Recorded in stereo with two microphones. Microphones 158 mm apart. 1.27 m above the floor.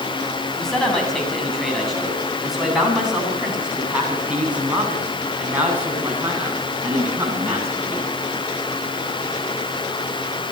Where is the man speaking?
5° left (ahead or behind), 8 m; by 8.1 s 15° right (ahead or behind), 10 m.